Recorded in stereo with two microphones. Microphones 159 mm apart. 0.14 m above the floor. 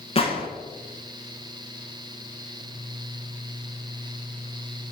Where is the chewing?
I don't hear chewing.